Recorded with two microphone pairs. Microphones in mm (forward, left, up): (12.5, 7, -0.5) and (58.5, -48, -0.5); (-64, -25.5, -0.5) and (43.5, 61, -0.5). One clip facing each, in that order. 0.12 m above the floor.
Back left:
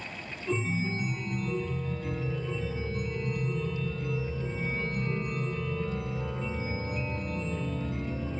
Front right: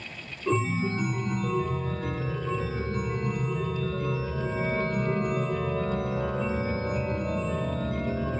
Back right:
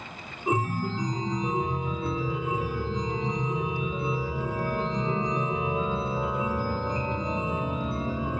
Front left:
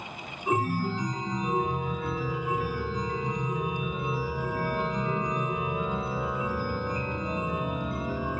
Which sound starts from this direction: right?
A chime, at 0.5 s.